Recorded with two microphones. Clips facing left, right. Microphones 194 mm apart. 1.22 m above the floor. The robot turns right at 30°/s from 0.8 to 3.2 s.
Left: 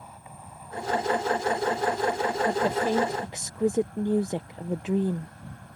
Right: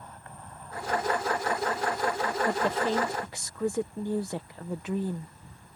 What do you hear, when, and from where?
0.0 s an insect: 10° left; by 5.8 s 80° left
2.5 s a woman speaking: 5° left (ahead or behind); by 5.3 s 20° left (ahead or behind)